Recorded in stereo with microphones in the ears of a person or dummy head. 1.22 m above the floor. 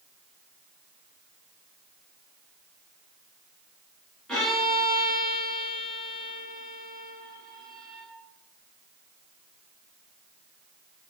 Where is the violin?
5° left (ahead or behind), 3 m.